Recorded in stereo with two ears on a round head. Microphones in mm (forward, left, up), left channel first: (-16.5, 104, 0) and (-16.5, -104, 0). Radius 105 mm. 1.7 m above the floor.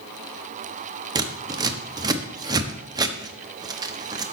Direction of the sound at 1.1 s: 15° right (ahead or behind).